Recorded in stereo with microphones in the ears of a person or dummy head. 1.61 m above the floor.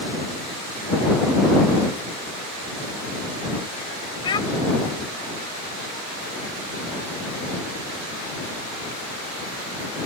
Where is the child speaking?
25° left (ahead or behind).